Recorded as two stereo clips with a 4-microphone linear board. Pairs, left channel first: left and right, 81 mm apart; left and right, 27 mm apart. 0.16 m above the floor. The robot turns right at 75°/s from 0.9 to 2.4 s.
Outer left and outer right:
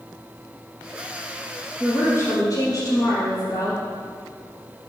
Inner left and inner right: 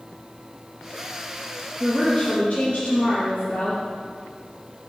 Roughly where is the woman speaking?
Ahead.